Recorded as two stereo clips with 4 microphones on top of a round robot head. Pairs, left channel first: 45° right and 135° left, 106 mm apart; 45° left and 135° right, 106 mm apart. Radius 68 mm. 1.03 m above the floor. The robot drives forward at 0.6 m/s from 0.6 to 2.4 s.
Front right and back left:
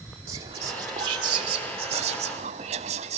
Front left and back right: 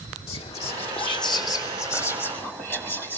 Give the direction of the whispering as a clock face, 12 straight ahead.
9 o'clock.